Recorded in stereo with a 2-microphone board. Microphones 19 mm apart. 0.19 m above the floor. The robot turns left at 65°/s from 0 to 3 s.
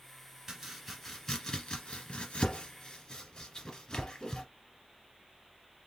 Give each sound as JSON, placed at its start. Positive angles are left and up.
{"t": 0.5, "sound": "chopping", "side_deg": -30, "distance_m": 1.7}